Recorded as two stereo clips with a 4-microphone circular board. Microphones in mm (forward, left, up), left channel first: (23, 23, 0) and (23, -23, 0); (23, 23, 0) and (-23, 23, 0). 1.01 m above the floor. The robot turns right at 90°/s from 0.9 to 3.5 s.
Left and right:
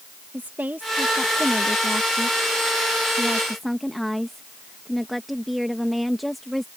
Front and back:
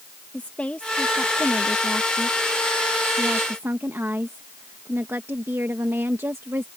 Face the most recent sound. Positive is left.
turn(degrees=180)